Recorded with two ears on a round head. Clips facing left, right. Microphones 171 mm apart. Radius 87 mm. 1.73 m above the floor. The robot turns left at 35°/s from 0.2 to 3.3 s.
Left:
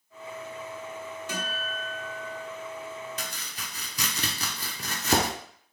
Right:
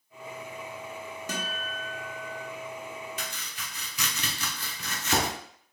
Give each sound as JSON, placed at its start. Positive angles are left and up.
{"t": 1.3, "sound": "a guitar", "azimuth_deg": -95, "distance_m": 1.0}
{"t": 3.2, "sound": "chopping", "side_deg": 35, "distance_m": 0.6}